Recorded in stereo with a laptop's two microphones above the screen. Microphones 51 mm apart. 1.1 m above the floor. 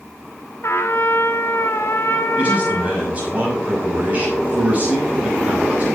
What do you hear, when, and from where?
0.6 s a trumpet: 55° left (ahead or behind), 1.1 m
2.4 s a man speaking: 30° right (ahead or behind), 5.5 m